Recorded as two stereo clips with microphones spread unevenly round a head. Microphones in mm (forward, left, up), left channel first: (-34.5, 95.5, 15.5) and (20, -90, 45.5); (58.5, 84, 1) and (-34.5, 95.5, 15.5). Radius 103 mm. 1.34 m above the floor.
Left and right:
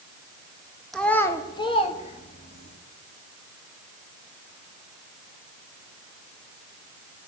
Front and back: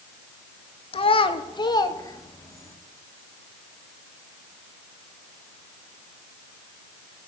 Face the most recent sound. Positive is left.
turn(degrees=55)